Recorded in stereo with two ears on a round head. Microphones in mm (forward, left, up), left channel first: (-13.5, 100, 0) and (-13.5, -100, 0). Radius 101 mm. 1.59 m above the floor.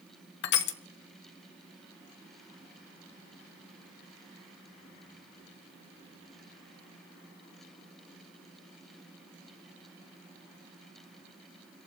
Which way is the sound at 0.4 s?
50° left (ahead or behind).